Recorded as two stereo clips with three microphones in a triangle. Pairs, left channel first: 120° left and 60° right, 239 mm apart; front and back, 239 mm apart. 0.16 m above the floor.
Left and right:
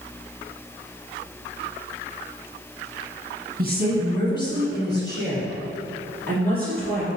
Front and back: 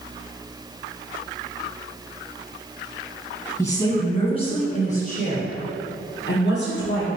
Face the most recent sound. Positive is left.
turn(degrees=-20)